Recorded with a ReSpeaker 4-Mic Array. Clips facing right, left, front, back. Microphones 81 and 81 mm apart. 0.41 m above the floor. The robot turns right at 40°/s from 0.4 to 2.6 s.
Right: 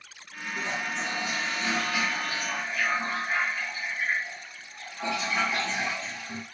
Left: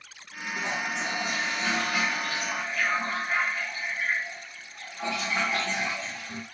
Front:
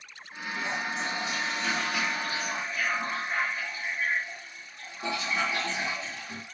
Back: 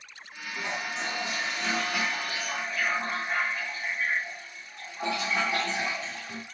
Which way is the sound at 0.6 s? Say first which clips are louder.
Left 1 dB, front 1 dB; 105° left.